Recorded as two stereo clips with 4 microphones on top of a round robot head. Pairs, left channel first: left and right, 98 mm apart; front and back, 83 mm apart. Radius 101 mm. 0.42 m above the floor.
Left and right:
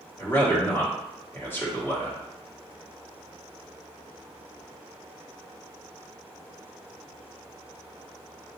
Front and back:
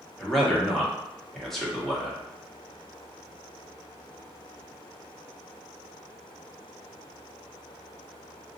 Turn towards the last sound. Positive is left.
turn(degrees=80)